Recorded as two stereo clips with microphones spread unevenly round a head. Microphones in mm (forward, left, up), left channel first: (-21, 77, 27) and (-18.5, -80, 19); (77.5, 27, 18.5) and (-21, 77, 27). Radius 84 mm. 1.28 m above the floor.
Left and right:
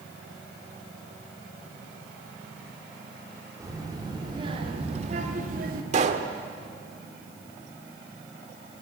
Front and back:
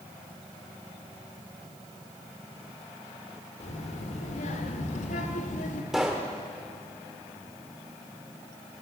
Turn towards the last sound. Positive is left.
turn(degrees=-125)